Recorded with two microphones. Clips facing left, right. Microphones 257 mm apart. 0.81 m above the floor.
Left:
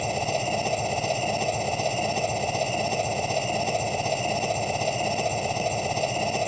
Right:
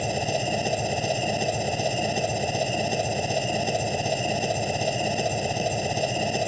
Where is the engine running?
10° right (ahead or behind).